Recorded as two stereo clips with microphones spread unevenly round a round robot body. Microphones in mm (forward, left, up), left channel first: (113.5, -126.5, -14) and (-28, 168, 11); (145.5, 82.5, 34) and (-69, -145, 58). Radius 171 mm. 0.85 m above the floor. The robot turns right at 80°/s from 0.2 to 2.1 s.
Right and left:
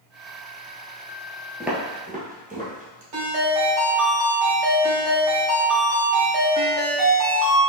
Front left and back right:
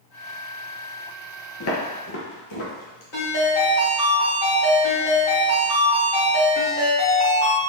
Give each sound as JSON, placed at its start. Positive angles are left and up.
{"t": 1.6, "sound": "footsteps", "azimuth_deg": 35, "distance_m": 0.9}
{"t": 3.1, "sound": "a ringtone", "azimuth_deg": 100, "distance_m": 1.7}